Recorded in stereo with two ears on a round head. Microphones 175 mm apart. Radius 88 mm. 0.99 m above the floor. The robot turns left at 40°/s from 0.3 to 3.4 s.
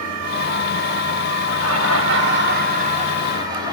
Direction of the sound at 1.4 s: 80° right.